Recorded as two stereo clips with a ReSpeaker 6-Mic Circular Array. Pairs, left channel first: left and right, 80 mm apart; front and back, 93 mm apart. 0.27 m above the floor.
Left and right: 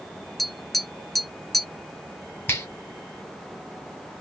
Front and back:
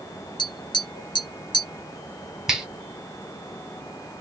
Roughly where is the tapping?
Ahead.